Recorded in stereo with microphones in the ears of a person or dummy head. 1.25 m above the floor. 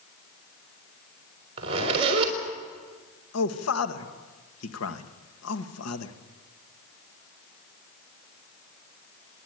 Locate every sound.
1.6 s a zipper: 30° right (ahead or behind), 4.5 m
3.3 s a man speaking: 75° left (ahead or behind), 1.8 m